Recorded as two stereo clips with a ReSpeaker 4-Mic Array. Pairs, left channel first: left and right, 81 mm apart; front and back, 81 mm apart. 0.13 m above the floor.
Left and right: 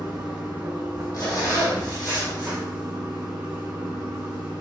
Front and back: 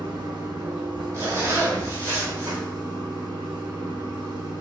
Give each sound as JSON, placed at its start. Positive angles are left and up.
{"t": 0.0, "sound": "running water", "azimuth_deg": -165, "distance_m": 1.2}
{"t": 1.1, "sound": "a zipper", "azimuth_deg": 130, "distance_m": 1.7}